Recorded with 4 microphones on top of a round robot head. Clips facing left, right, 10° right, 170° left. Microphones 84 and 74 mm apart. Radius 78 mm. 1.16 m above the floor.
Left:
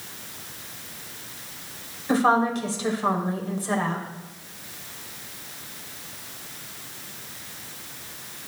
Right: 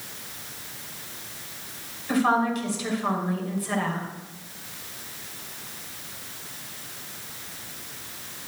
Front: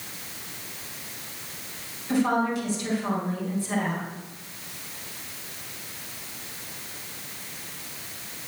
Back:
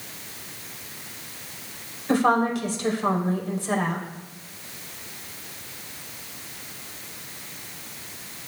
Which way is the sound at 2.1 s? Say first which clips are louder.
Left 2 dB, back 3 dB; 145° left.